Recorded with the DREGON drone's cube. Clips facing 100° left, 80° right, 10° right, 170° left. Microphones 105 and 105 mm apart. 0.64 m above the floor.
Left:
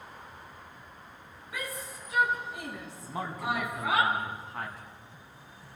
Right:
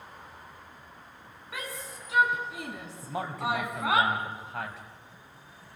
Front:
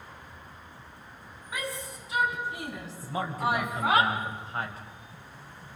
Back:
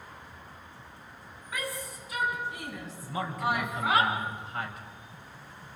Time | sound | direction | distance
1.5 | a shout | 80° right | 7 m
3.0 | a man speaking | 70° right | 4.5 m